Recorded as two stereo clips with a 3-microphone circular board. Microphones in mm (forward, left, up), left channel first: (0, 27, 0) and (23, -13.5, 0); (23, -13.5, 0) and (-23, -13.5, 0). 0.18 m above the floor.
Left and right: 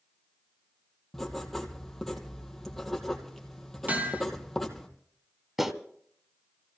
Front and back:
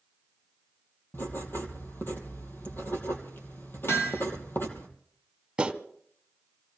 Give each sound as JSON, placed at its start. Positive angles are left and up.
{"t": 1.1, "sound": "writing", "azimuth_deg": 35, "distance_m": 2.5}
{"t": 3.9, "sound": "hammering", "azimuth_deg": -15, "distance_m": 4.0}
{"t": 5.6, "sound": "a clap", "azimuth_deg": -135, "distance_m": 1.3}